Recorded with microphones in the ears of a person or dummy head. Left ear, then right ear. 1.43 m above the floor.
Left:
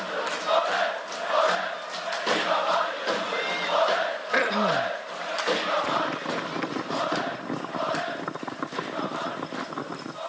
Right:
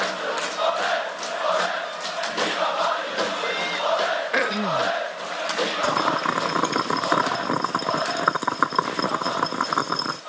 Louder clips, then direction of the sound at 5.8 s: Right 5 dB; 60° right (ahead or behind).